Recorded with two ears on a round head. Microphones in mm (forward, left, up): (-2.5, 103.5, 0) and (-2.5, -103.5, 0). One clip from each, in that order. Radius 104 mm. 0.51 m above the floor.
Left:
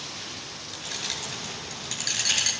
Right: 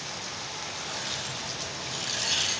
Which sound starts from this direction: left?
Keys jangling, at 0.7 s.